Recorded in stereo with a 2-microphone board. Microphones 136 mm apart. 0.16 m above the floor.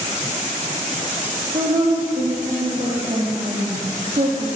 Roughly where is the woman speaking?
Right.